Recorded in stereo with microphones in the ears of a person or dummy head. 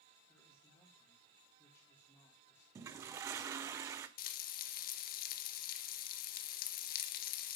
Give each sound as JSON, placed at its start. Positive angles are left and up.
{"t": 0.3, "sound": "a man speaking", "side_deg": 10, "distance_m": 3.5}
{"t": 2.8, "sound": "a toilet flushing", "side_deg": -20, "distance_m": 1.1}
{"t": 4.2, "sound": "frying", "side_deg": 50, "distance_m": 1.5}